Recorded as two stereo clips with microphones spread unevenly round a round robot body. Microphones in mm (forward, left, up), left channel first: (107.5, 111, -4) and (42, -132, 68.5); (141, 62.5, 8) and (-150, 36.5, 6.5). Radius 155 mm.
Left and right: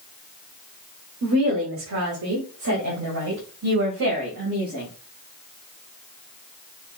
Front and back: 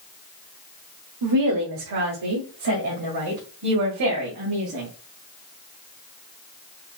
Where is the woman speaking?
165° right, 1.4 m; by 4.9 s 140° right, 3 m.